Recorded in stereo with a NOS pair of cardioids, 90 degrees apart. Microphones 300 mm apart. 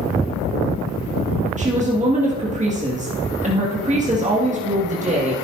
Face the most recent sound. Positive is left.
turn(degrees=-25)